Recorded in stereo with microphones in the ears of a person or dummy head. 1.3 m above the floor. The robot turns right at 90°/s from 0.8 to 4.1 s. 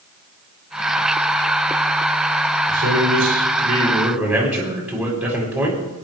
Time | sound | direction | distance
2.7 | a man speaking | 135° right | 6.5 m